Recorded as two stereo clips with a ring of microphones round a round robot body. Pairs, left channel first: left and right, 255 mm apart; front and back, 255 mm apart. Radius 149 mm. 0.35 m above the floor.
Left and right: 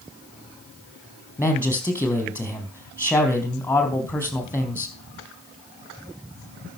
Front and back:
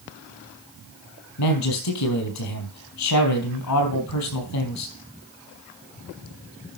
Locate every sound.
1.4 s a man speaking: 5° left, 4 m